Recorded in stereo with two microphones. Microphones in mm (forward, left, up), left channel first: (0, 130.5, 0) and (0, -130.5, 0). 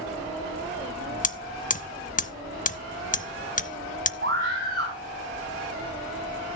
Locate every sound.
1.2 s hammering: 30° left (ahead or behind), 0.5 m
4.2 s a scream: 50° right (ahead or behind), 4.5 m